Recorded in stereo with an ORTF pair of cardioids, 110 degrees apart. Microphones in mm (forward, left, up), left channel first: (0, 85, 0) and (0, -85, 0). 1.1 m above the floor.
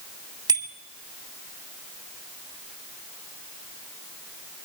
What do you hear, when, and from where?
0.5 s a bicycle bell: 20° right, 3 m